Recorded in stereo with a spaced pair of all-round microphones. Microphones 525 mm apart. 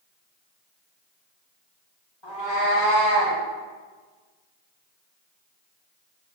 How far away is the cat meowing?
About 2.5 m.